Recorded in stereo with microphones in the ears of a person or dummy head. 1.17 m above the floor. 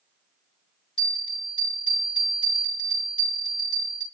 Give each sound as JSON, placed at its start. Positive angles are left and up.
{"t": 1.0, "sound": "a bell", "side_deg": 30, "distance_m": 1.9}